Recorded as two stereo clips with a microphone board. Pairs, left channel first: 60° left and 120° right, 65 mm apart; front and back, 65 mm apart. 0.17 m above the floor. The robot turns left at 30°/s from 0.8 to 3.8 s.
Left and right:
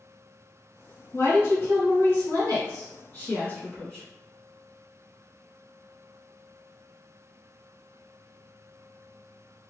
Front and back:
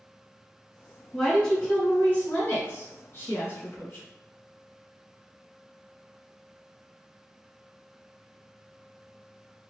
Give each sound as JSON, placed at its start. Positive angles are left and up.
{"t": 1.1, "sound": "a woman speaking", "azimuth_deg": 75, "distance_m": 1.4}